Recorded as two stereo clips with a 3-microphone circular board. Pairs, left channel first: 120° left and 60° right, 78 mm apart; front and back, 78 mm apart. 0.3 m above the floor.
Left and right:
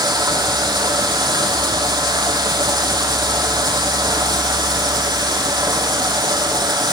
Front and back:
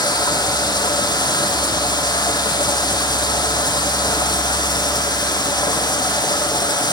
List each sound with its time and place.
0.0 s running water: 35° right, 6 m